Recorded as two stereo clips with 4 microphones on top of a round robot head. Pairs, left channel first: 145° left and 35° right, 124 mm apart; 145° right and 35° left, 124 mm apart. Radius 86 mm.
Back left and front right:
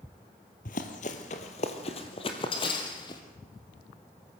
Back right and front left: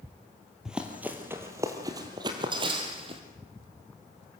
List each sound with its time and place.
0.7 s running footsteps: 120° left, 1.8 m; by 3.2 s 85° left, 2.5 m